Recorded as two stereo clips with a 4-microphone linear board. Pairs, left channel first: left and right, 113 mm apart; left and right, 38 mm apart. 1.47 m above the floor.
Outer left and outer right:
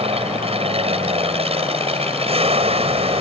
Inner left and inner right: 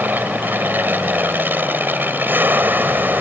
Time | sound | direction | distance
0.0 | an aircraft | 60° right (ahead or behind) | ?